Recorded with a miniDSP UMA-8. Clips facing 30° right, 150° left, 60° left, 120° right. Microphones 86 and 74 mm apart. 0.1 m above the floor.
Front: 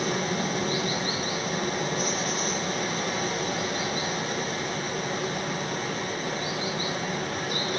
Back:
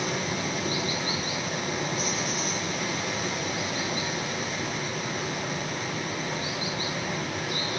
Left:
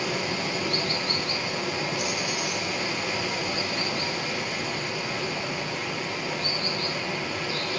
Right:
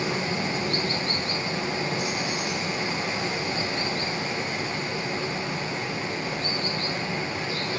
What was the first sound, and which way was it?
Running water, 65° right.